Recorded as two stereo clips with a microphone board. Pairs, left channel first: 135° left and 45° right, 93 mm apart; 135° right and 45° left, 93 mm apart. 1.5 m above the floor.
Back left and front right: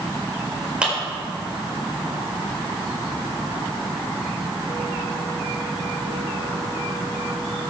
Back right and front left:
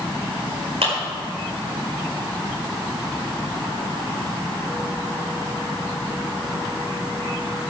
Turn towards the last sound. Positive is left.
turn(degrees=35)